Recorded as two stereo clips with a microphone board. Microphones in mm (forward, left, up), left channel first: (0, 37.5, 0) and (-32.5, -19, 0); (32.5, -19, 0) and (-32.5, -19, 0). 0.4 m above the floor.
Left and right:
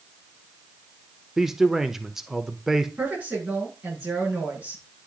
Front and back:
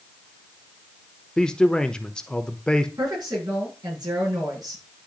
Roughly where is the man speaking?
Ahead right.